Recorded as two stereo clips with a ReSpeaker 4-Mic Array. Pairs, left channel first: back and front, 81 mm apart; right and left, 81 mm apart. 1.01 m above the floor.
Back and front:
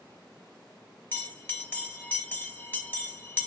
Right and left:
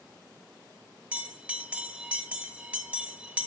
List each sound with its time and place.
1.1 s a bell: 145° left, 0.8 m